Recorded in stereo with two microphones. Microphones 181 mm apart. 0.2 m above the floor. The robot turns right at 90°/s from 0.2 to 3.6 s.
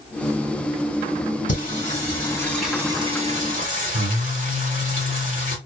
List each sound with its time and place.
1.5 s singing: 80° left, 1.6 m; by 5.6 s 90° right, 1.6 m